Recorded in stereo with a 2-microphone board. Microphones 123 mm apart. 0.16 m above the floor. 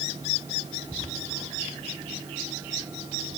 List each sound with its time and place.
Only background noise.